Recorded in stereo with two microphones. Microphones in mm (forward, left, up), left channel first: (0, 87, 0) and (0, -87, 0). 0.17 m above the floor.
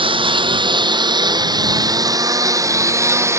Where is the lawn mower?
30° right (ahead or behind); by 3.4 s 15° right (ahead or behind).